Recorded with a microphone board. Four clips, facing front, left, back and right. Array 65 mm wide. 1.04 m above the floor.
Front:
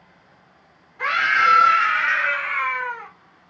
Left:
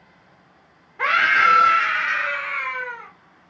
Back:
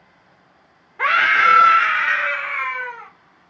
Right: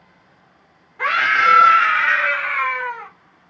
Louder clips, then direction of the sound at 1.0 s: Right 1 dB, back 3 dB; 165° left.